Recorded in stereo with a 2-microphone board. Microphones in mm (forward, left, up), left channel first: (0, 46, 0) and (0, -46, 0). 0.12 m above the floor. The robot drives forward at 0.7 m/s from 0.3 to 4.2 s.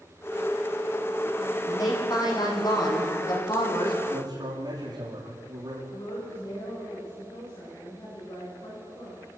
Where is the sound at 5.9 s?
45° left (ahead or behind), 9.5 m.